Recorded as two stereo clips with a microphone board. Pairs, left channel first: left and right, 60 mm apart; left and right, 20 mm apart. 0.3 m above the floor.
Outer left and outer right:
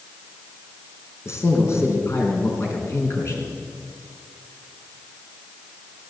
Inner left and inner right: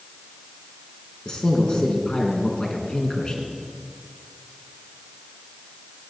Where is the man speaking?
50° left (ahead or behind), 3 m.